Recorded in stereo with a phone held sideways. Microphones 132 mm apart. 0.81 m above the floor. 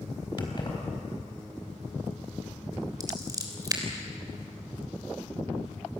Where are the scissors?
30° right (ahead or behind), 3.5 m.